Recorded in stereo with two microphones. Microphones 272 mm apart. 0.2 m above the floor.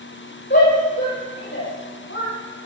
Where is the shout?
40° left (ahead or behind), 8.5 m; by 2.3 s 45° left (ahead or behind), 9.5 m.